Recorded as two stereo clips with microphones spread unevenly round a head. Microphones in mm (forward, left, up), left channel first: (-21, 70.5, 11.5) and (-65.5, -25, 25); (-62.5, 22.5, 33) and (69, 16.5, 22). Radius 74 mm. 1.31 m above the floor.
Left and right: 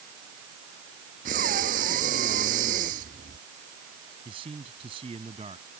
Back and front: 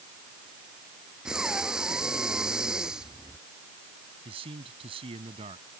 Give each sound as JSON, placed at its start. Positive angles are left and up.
{"t": 1.2, "sound": "breathing", "azimuth_deg": -90}
{"t": 4.2, "sound": "a man speaking", "azimuth_deg": -60}